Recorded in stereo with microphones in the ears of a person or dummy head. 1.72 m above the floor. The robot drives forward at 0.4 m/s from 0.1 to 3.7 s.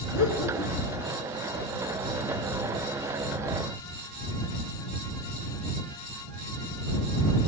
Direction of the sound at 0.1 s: 80° left.